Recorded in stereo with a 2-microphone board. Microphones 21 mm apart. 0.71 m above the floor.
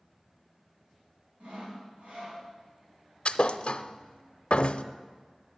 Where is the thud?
60° left (ahead or behind), 0.5 m.